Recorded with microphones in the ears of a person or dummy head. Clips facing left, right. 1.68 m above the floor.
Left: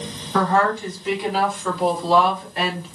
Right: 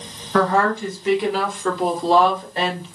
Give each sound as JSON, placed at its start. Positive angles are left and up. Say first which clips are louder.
{"t": 0.3, "sound": "a woman speaking", "louder": "right 1 dB", "side_deg": -70, "distance_m": 2.0}